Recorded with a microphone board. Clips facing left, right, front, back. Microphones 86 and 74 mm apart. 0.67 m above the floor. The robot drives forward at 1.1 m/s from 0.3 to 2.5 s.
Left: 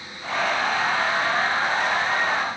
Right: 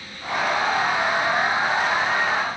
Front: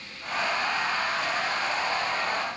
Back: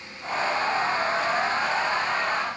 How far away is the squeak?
No squeak in this recording.